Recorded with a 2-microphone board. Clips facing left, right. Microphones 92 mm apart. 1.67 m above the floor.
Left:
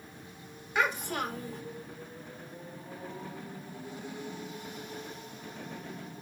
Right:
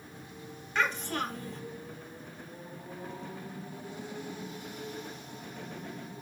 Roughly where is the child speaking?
Centre.